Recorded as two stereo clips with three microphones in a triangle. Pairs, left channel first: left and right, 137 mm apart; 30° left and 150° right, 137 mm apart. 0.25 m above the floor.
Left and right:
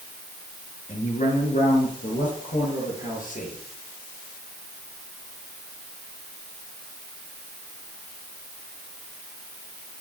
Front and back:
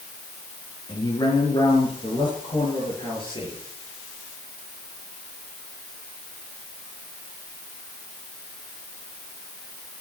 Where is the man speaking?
85° left, 4.5 m; by 3.6 s 80° left, 6.5 m.